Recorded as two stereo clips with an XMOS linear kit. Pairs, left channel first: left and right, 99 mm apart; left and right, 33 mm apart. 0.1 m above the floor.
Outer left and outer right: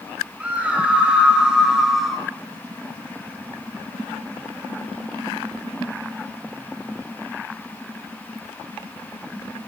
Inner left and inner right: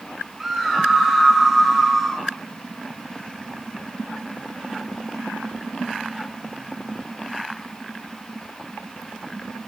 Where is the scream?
15° right (ahead or behind), 7 m; by 2.3 s centre (ahead or behind), 5.5 m.